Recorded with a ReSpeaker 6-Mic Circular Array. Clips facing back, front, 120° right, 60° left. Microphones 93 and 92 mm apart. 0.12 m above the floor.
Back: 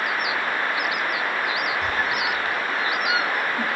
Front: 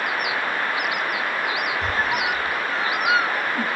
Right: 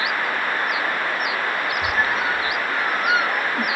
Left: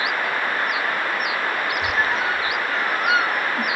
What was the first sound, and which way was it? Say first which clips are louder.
A squeak: front 1 dB, right 1 dB; 35° right.